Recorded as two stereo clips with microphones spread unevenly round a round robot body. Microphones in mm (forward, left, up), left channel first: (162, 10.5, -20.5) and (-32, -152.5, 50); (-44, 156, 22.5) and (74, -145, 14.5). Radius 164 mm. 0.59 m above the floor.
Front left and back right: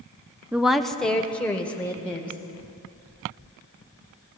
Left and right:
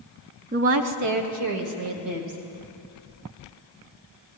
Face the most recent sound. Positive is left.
turn(degrees=-40)